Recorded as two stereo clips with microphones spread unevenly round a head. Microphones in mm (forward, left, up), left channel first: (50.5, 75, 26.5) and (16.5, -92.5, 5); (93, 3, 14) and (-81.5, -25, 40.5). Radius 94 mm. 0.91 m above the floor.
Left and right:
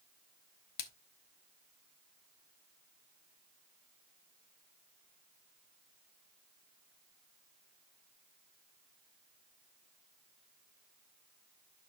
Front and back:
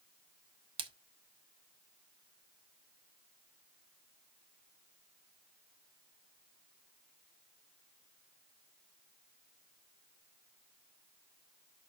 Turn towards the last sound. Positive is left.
turn(degrees=125)